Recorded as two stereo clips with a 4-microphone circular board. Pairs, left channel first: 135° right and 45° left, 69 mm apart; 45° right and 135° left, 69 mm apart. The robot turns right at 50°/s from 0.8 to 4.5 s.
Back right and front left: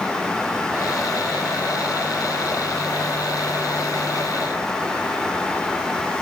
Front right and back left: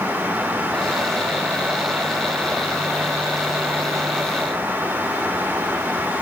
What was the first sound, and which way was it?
Only background noise.